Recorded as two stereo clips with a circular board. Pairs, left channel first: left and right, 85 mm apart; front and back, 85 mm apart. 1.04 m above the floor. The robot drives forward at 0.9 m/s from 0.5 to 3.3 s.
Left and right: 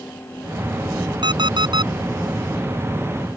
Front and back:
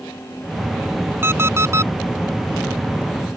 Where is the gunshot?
No gunshot in this recording.